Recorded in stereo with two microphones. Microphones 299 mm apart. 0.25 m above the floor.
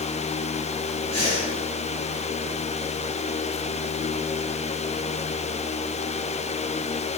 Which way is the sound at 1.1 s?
20° left (ahead or behind).